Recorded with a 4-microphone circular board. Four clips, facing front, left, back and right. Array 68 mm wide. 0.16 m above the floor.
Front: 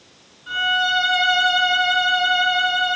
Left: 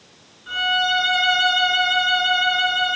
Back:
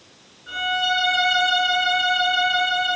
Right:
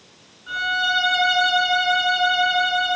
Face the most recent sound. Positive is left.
turn(degrees=50)